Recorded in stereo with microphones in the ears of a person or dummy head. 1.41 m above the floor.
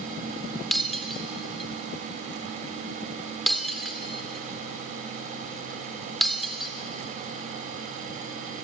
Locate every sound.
0.7 s breaking glass: centre (ahead or behind), 1.8 m